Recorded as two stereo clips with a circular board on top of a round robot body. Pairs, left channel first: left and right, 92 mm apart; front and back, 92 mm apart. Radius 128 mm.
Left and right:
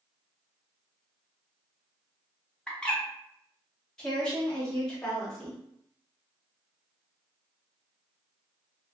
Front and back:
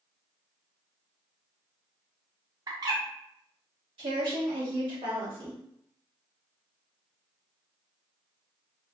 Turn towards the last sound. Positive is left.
turn(degrees=170)